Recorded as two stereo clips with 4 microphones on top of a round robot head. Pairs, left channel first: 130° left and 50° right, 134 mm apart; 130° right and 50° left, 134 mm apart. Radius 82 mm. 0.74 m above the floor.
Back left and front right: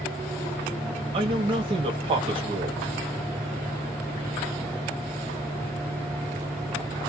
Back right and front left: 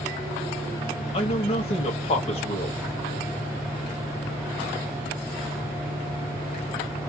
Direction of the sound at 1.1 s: 95° right.